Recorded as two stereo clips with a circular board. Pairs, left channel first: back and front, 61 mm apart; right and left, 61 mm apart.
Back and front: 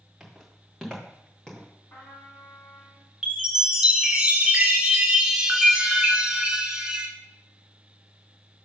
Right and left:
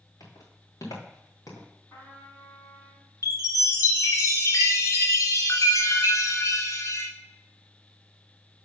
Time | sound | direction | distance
0.2 | footsteps | 90° right | 3.5 m
1.9 | a trumpet | 125° right | 3.5 m
3.2 | a chime | 75° right | 1.3 m